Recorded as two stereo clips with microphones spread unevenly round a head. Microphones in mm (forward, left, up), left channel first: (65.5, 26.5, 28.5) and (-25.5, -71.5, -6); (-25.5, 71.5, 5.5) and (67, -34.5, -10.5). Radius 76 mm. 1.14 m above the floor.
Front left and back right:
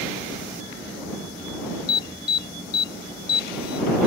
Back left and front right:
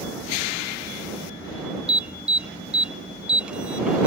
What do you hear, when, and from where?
1.9 s an alarm: 30° left